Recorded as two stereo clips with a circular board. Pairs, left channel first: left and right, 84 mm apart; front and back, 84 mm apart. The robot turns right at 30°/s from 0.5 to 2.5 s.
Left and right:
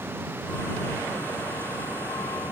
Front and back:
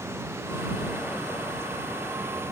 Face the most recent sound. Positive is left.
No sound to turn to.